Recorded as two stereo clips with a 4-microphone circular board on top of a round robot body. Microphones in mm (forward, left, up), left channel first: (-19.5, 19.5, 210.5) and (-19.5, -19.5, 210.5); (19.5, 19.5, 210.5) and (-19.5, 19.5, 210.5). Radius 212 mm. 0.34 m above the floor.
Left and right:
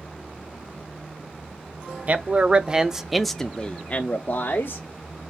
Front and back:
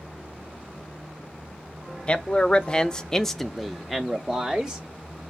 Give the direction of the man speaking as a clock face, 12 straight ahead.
2 o'clock.